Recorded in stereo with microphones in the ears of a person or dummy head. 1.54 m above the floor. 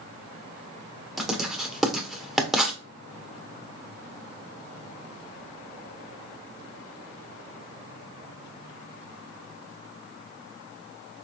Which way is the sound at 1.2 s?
Centre (ahead or behind).